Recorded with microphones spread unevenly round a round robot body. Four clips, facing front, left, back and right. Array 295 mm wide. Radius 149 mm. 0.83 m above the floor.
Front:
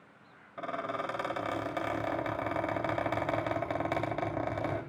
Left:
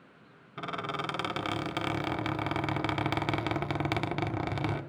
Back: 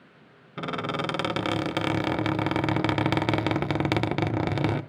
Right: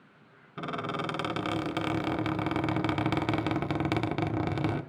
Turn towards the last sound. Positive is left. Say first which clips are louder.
# right 2 dB, back 5 dB
turn(degrees=-170)